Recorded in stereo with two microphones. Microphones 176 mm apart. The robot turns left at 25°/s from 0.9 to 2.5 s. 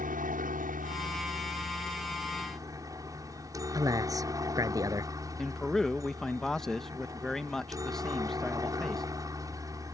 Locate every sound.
0.0 s a helicopter: 120° right; by 9.9 s 160° right
3.7 s a man speaking: 20° right (ahead or behind)
5.4 s a man speaking: 5° left (ahead or behind)